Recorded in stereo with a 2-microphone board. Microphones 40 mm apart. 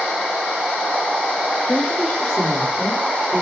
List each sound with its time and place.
1.7 s a woman speaking: 20° left (ahead or behind), 7.5 m; by 3.4 s 10° left (ahead or behind), 6 m